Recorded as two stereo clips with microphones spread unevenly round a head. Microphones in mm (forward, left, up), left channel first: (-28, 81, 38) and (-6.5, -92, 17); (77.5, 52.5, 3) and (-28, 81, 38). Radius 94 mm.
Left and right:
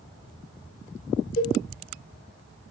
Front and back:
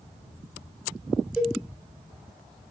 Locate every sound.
1.4 s a cowbell: 100° left, 1.6 m